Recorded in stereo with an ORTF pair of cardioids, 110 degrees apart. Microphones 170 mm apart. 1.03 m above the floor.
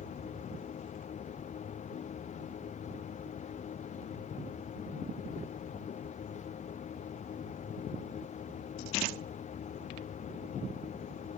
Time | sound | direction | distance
0.0 | a machine running | 45° left | ?